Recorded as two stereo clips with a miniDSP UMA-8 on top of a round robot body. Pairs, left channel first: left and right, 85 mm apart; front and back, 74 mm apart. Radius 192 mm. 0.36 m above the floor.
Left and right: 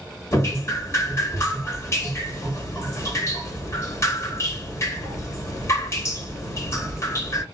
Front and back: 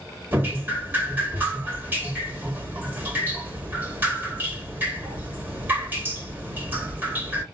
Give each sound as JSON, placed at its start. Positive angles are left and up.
{"t": 0.3, "sound": "dripping", "azimuth_deg": 130, "distance_m": 1.7}